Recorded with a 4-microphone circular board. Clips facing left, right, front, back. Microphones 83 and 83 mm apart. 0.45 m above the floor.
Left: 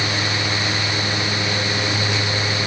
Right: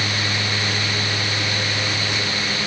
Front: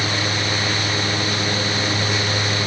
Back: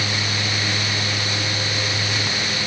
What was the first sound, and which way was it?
Only background noise.